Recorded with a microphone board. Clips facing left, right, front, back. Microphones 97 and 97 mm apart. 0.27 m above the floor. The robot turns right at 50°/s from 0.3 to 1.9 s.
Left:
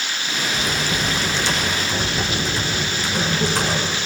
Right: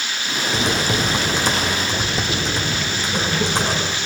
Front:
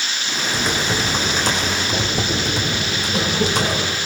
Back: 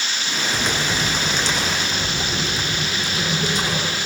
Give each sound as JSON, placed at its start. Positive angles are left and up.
{"t": 0.5, "sound": "typing on a keyboard", "azimuth_deg": -90, "distance_m": 7.5}